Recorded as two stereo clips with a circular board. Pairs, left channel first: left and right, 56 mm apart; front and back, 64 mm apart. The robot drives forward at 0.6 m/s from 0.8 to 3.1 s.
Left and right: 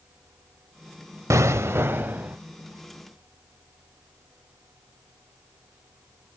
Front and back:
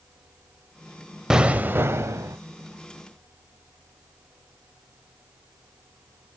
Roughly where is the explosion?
Right.